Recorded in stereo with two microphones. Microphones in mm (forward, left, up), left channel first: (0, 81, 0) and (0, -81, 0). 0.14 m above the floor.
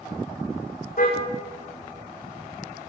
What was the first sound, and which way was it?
A car horn, 60° left (ahead or behind).